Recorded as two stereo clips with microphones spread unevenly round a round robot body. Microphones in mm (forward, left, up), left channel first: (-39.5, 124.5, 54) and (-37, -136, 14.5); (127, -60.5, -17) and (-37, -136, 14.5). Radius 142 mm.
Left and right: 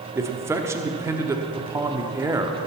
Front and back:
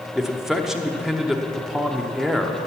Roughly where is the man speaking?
Ahead right.